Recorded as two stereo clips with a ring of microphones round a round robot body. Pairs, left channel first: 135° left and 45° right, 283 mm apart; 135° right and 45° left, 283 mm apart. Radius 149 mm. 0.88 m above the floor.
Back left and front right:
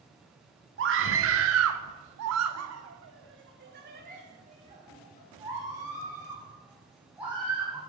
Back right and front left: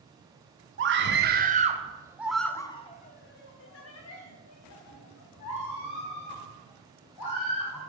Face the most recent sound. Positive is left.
turn(degrees=-130)